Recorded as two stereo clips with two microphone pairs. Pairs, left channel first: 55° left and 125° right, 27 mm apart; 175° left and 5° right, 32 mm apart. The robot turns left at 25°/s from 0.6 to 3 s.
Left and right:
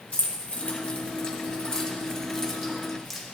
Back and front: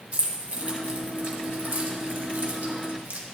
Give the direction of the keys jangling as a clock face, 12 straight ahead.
11 o'clock.